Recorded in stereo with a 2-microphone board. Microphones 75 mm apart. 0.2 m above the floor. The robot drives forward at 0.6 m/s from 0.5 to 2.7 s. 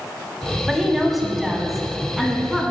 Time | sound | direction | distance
0.7 | a woman speaking | centre (ahead or behind) | 1.0 m